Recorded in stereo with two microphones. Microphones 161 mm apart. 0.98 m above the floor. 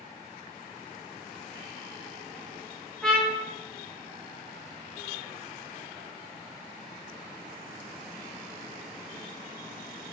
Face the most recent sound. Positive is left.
turn(degrees=5)  # may be behind; listen again after turning